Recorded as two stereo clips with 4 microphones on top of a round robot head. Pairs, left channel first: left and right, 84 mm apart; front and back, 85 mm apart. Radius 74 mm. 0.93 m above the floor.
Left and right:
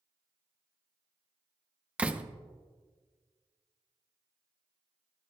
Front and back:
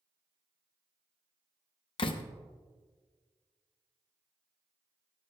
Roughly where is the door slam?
Ahead.